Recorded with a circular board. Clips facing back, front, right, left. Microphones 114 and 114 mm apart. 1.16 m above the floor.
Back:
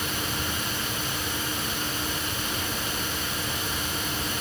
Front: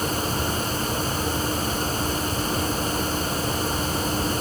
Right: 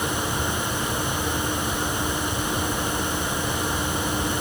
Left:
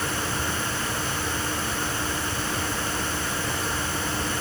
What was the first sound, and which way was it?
Only background noise.